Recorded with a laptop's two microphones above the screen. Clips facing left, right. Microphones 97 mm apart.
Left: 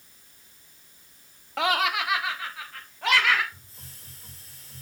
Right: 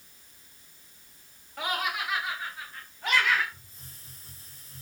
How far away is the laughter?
About 1.0 m.